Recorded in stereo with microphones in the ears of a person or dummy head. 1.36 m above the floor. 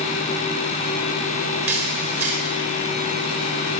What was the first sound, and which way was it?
A camera shutter, 5° right (ahead or behind).